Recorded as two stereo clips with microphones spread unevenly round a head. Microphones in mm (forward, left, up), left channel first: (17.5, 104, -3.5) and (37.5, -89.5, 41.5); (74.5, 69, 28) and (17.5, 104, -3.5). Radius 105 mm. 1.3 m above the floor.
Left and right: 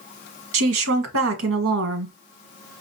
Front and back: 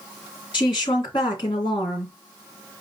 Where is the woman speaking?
65° right, 1.2 m.